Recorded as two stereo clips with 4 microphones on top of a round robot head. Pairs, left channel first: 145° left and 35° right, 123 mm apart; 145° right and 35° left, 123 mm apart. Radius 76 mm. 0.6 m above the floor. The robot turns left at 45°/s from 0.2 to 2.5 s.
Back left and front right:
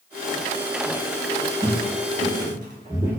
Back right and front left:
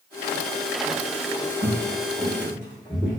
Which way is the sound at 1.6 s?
10° left.